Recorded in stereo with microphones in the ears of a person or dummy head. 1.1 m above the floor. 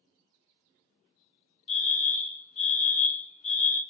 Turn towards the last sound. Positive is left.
turn(degrees=30)  # may be behind; listen again after turning